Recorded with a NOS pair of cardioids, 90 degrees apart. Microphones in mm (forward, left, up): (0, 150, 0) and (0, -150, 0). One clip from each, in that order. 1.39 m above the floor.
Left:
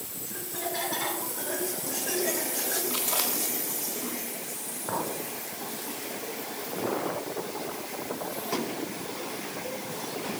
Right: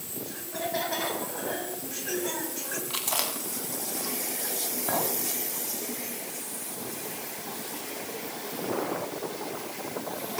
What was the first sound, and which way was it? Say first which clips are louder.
Laughter: right 2 dB; 40° right.